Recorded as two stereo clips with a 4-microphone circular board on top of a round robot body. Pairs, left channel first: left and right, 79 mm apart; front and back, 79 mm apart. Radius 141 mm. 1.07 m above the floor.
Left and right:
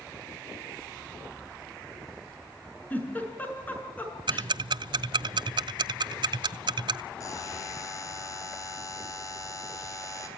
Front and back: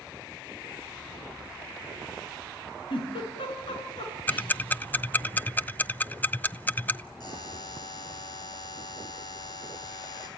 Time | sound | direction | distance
2.9 | a giggle | 20° left | 6 m
4.3 | ticking | 70° right | 0.7 m
7.2 | a buzzer | 45° left | 4.5 m